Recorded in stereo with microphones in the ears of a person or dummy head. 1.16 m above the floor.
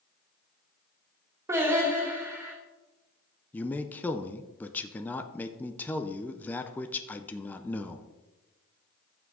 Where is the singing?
15° right (ahead or behind), 2.5 m.